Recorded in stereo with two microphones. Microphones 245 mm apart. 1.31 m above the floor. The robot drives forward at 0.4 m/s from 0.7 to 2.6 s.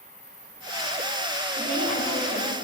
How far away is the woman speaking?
About 4 m.